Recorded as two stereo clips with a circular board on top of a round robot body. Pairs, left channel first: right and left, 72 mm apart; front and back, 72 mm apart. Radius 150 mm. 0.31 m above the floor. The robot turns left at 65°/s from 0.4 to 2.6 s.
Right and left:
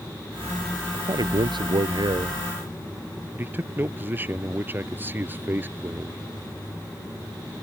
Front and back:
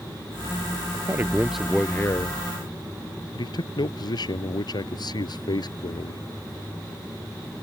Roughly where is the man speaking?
Behind left.